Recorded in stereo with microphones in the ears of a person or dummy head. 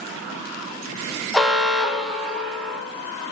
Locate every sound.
1.3 s an alarm: 5° left (ahead or behind), 0.6 m